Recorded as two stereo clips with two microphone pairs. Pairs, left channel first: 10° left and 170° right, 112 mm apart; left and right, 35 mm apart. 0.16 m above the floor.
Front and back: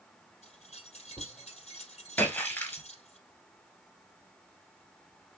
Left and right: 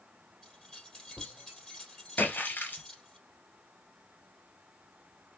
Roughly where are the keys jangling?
Ahead.